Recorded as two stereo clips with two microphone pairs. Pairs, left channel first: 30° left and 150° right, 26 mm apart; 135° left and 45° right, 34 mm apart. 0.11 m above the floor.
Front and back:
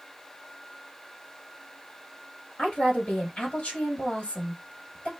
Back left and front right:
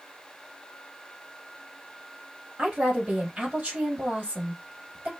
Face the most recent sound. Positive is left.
turn(degrees=10)